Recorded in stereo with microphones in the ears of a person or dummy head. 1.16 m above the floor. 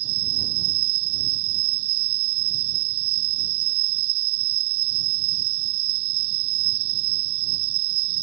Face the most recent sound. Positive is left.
turn(degrees=-55)  # may be behind; listen again after turning